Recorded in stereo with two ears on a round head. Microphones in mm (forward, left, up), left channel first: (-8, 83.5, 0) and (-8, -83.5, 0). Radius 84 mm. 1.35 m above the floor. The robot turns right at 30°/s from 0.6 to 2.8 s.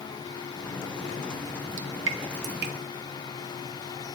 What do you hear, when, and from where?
1.8 s dripping: 80° right, 0.7 m; by 2.7 s 55° right (ahead or behind), 0.7 m